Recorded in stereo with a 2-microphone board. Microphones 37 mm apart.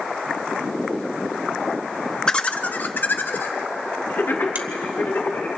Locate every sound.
2.3 s laughter: 15° left (ahead or behind), 0.8 m; by 5.5 s 80° left, 4 m
4.5 s a finger snap: 50° right (ahead or behind), 1.3 m